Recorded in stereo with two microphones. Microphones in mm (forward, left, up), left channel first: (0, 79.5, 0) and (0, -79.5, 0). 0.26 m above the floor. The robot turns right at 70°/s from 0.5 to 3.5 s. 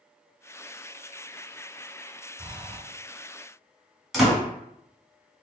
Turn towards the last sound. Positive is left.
turn(degrees=0)  # may be behind; listen again after turning